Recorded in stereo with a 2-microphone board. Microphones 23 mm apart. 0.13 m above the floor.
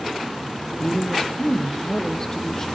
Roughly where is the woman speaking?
Left.